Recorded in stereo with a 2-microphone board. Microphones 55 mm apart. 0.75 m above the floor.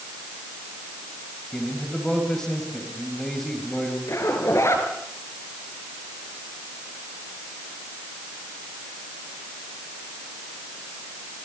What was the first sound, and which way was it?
A man speaking, 10° left (ahead or behind).